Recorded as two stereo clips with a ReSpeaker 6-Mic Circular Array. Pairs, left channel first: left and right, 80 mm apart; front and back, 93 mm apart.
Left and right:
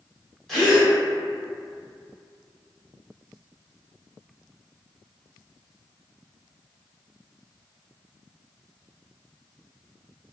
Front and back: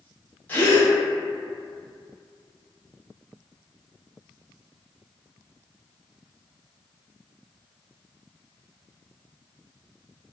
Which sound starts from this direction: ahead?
A gasp, at 0.5 s.